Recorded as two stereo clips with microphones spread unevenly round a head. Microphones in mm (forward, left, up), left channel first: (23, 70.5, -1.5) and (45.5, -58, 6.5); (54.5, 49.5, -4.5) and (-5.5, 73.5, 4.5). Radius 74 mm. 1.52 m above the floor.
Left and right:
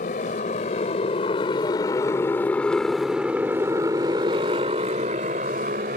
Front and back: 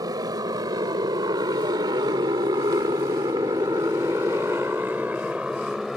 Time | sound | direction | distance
0.0 | a motorcycle | 145° left | ?